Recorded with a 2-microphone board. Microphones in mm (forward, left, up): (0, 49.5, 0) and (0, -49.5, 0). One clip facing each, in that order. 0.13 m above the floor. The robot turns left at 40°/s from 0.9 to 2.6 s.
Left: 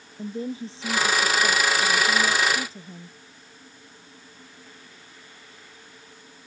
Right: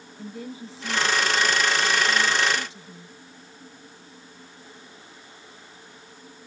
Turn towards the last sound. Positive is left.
turn(degrees=65)